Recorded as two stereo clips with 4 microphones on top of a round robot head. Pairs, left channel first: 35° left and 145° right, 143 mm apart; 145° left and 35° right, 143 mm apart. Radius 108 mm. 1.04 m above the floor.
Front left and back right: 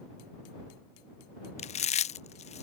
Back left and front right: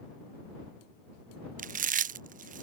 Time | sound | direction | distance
1.6 | chewing | 5° right | ?